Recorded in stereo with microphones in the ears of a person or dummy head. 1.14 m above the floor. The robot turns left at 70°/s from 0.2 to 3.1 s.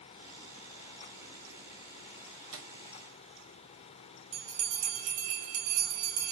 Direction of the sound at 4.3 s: 65° right (ahead or behind).